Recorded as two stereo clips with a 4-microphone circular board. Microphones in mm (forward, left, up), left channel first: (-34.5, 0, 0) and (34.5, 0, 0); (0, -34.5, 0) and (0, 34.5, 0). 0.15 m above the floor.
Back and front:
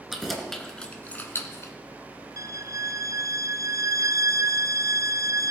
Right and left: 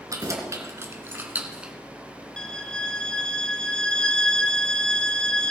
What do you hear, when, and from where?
0.1 s keys jangling: 85° left, 1.8 m; by 1.7 s 165° left, 1.5 m
2.4 s a violin: 15° right, 0.8 m